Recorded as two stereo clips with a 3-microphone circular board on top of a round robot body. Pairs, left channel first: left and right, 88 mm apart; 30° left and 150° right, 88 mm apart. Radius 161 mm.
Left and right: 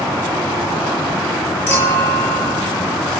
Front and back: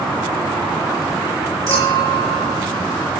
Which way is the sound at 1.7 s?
155° left.